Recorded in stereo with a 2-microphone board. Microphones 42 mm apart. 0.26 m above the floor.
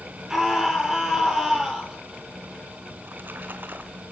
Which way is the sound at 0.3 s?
10° right (ahead or behind).